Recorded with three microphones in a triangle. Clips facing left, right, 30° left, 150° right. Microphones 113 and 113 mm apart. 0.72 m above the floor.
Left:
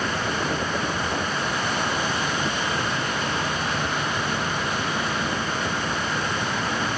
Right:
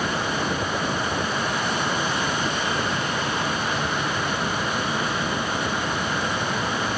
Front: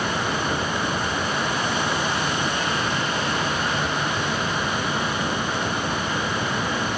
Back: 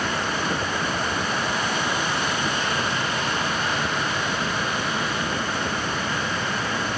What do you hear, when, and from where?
Only background noise.